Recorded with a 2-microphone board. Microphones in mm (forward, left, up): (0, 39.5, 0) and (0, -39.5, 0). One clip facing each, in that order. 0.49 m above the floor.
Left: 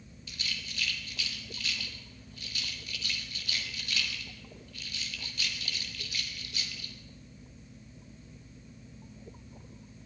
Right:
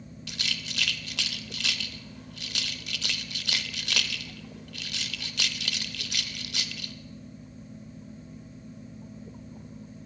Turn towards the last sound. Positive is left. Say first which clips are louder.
# right 4 dB
turn(degrees=-75)  # may be behind; listen again after turning